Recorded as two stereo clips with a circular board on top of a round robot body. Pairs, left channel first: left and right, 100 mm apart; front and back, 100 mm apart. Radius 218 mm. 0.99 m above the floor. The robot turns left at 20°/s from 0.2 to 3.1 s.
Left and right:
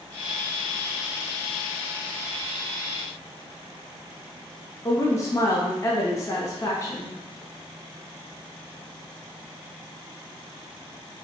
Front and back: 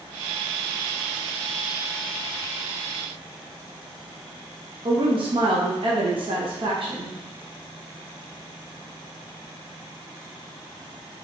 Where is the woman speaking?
150° left, 0.9 m.